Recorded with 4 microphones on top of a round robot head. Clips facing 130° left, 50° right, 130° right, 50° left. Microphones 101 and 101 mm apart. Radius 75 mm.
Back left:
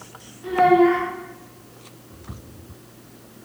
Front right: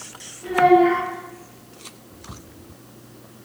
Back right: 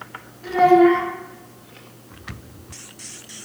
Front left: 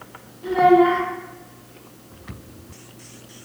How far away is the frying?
I don't hear frying.